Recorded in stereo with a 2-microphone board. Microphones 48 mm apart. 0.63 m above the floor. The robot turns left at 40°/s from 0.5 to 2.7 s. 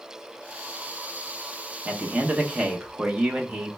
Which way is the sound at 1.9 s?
90° right.